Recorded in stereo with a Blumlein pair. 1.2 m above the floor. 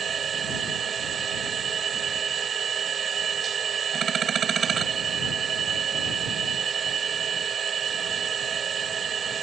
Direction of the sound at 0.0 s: 25° right.